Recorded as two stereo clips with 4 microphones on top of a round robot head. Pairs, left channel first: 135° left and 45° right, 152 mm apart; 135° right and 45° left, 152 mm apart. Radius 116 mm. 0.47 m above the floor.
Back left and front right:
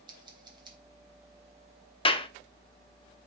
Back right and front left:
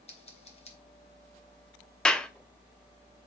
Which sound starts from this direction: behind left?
A clap, at 2.0 s.